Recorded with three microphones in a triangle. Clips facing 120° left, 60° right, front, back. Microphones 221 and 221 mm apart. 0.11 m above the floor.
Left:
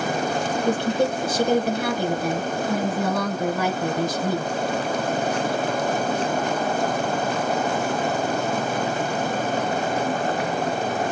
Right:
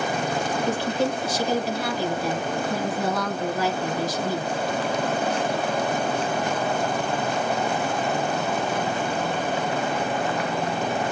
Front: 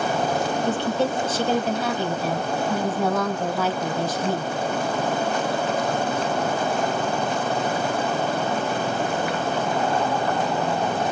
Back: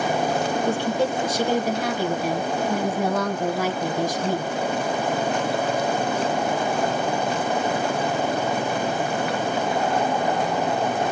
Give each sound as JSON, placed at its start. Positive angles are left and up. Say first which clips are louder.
{"t": 0.7, "sound": "a woman speaking", "louder": "left 4 dB, even", "azimuth_deg": 105, "distance_m": 2.5}